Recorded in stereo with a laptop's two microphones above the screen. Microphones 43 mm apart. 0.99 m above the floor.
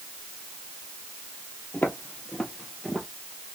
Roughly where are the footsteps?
Left.